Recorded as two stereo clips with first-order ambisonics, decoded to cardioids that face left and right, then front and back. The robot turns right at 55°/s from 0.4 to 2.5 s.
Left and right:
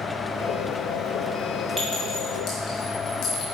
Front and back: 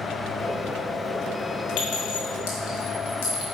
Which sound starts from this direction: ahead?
A clink, at 1.8 s.